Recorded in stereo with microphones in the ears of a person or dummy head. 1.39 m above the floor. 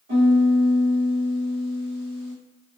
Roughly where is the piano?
Right.